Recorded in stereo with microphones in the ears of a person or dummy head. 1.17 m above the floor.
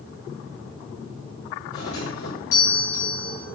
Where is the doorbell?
80° left, 7 m.